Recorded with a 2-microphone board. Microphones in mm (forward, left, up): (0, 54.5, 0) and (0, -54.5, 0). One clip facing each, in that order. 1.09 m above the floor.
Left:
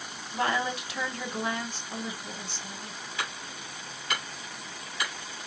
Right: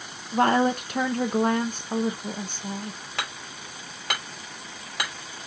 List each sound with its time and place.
0.3 s a woman speaking: 50° right (ahead or behind), 0.9 m
3.2 s hammering: 85° right, 6 m